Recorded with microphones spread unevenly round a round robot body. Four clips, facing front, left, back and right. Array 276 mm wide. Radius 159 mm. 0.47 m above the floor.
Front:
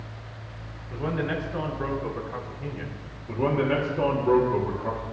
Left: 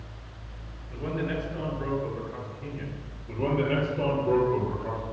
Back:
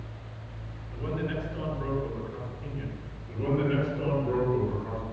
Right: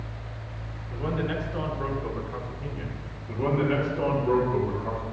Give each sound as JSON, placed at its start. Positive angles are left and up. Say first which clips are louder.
{"t": 0.9, "sound": "a man speaking", "louder": "right 1 dB, front 4 dB", "azimuth_deg": -15, "distance_m": 7.5}
{"t": 3.3, "sound": "a man speaking", "louder": "right 1 dB, front 4 dB", "azimuth_deg": 0, "distance_m": 9.0}